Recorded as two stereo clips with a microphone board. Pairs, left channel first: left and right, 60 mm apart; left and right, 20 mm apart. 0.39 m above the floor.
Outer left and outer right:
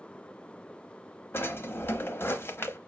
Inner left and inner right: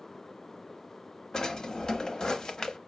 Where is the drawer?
40° left (ahead or behind), 0.5 m.